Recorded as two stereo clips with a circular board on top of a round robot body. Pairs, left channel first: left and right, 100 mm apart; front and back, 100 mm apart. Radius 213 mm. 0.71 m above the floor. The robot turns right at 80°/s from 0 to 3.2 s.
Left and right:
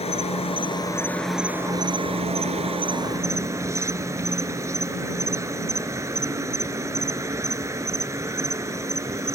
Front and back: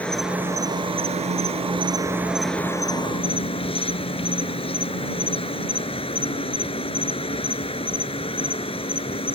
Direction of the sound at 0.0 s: 75° left.